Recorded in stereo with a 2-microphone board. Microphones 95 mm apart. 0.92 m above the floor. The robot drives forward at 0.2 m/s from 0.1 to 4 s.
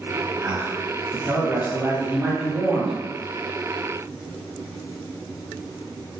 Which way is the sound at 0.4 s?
25° right (ahead or behind).